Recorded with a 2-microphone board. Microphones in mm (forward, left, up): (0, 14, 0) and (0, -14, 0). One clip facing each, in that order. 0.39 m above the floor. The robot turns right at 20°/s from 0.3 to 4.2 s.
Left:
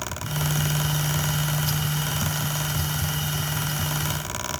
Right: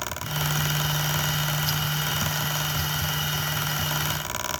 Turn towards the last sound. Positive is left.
No sound to turn to.